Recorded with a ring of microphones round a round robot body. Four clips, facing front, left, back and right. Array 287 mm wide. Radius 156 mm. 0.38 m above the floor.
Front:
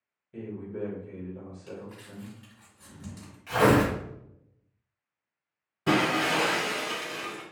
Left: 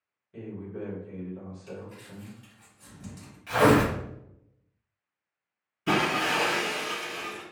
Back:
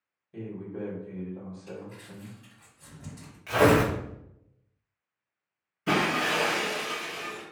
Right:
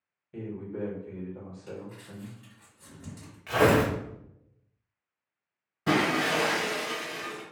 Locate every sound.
0.3 s a man speaking: 75° right, 1.4 m
1.7 s crumpling: 20° right, 1.9 m
3.5 s tearing paper: 120° right, 1.4 m
5.9 s breaking glass: 45° right, 1.5 m